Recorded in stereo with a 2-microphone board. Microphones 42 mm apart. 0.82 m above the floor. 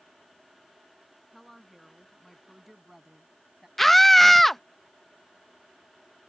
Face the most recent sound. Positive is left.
turn(degrees=5)  # may be behind; listen again after turning